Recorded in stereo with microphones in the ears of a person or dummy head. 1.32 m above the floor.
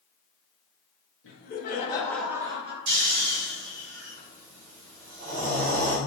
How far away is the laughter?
About 0.9 m.